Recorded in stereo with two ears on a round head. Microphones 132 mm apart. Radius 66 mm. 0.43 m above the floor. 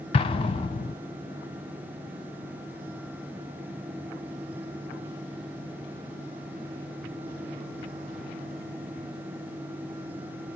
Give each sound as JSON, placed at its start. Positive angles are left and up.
{"t": 0.1, "sound": "an explosion", "side_deg": 40, "distance_m": 0.6}